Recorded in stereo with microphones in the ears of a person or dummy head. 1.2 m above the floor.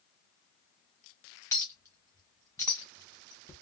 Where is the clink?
15° left (ahead or behind), 0.5 m.